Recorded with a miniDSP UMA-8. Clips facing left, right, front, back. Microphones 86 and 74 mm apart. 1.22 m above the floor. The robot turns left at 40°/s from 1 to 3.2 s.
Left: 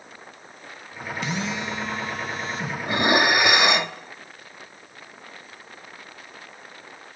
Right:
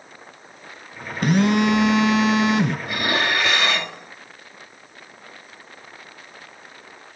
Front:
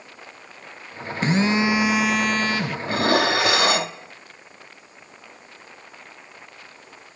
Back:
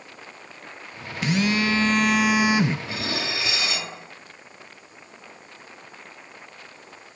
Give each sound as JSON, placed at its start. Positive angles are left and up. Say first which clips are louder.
{"t": 1.2, "sound": "a phone buzzing", "louder": "right 12 dB, front 3 dB", "azimuth_deg": -55, "distance_m": 0.7}
{"t": 2.9, "sound": "dishes clattering", "louder": "left 3 dB, front 10 dB", "azimuth_deg": 30, "distance_m": 1.3}